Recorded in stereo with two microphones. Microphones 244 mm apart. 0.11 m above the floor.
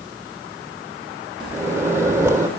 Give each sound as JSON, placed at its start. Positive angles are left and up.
{"t": 1.5, "sound": "a microwave", "side_deg": -10, "distance_m": 2.5}